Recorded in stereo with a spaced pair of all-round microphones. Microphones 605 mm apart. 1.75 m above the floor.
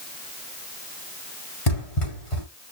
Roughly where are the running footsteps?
Left.